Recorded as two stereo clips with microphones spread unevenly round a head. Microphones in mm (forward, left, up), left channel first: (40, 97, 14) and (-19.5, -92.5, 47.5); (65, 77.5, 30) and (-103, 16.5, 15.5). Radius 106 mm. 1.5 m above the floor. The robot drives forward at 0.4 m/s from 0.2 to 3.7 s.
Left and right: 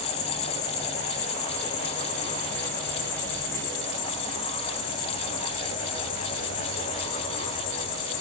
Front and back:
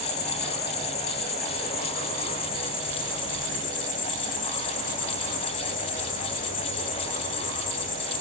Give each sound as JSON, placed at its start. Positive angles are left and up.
{"t": 0.0, "sound": "an insect", "azimuth_deg": 45, "distance_m": 5.0}